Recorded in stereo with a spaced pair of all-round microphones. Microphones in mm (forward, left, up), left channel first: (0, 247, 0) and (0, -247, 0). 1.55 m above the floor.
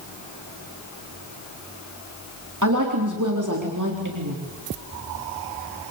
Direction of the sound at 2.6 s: 35° right (ahead or behind).